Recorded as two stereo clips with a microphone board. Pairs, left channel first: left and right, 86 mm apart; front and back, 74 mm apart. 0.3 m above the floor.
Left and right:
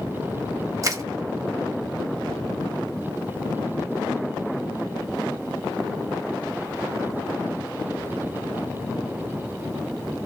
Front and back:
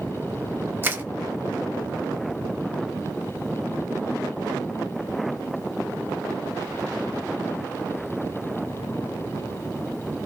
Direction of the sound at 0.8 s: 125° right.